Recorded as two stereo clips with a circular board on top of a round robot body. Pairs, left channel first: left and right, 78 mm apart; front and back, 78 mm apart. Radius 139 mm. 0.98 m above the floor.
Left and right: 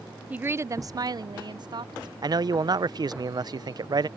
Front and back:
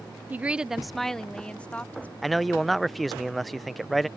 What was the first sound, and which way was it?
A woman speaking, 145° right.